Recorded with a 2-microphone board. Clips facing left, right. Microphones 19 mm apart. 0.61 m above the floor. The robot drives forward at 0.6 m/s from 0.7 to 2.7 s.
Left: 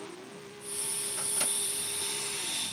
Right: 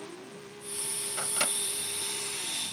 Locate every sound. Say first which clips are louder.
1.2 s a microwave: right 5 dB; 75° right (ahead or behind)